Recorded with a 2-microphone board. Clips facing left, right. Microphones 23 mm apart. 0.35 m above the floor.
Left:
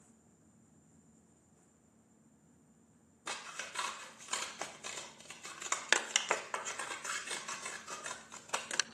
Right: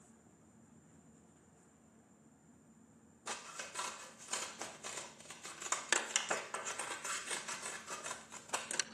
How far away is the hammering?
I don't hear hammering.